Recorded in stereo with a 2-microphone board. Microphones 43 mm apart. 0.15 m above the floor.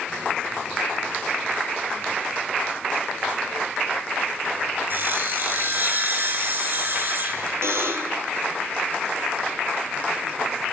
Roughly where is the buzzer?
Right.